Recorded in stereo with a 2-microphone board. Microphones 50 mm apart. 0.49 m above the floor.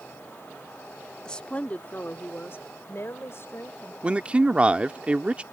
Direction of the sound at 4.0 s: 25° right (ahead or behind).